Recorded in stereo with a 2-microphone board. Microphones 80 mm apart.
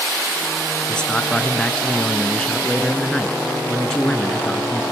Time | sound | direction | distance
0.9 | a man speaking | 10° left (ahead or behind) | 2 m